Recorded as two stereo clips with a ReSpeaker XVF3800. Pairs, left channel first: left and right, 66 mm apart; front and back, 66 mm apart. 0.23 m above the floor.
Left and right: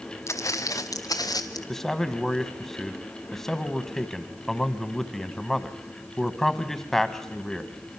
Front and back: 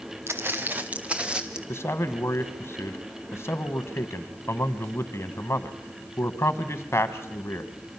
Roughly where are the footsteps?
Behind left.